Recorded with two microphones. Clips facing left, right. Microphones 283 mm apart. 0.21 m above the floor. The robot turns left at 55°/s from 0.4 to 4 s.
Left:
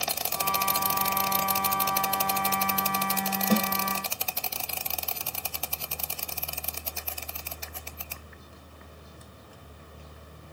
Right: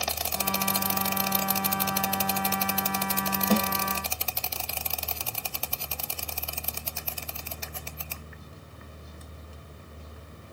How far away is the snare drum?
About 1.5 m.